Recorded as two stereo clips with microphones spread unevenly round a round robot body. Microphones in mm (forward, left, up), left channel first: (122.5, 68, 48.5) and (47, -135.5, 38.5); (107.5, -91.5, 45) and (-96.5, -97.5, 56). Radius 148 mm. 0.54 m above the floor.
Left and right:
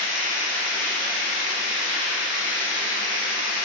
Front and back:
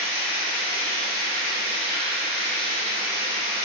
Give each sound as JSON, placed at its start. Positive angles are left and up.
{"t": 0.0, "sound": "running water", "azimuth_deg": -135, "distance_m": 0.9}